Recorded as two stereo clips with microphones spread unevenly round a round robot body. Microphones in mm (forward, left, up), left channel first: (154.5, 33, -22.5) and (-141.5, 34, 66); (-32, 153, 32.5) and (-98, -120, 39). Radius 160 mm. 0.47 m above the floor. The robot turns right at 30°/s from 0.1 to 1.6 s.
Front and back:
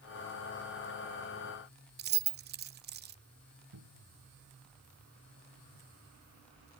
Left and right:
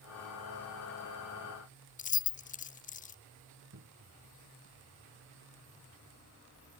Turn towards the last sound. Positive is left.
turn(degrees=-145)